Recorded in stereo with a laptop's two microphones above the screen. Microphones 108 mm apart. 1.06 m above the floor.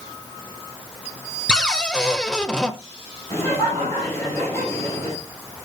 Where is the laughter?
25° left (ahead or behind), 4.5 m.